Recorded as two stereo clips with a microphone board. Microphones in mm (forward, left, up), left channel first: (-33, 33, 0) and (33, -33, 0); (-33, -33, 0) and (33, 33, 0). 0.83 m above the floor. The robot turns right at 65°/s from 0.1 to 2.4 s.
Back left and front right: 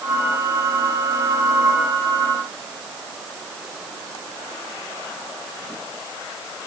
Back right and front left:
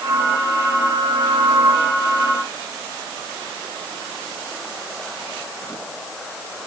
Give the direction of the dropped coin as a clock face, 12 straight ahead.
No dropped coin in this recording.